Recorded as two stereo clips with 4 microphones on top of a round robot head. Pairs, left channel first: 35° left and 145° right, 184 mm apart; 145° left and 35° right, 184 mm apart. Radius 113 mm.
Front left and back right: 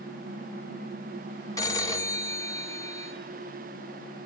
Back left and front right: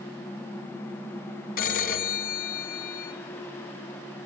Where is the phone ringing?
105° left, 2.5 m.